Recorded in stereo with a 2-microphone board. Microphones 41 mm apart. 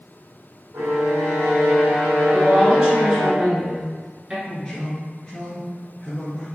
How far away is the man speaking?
About 1.6 m.